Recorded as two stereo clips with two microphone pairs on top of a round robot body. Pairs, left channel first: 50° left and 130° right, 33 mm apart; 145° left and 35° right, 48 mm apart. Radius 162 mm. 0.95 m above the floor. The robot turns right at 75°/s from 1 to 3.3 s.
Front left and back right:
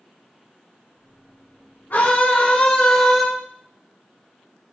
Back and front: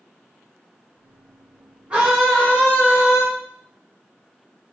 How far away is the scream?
About 4 m.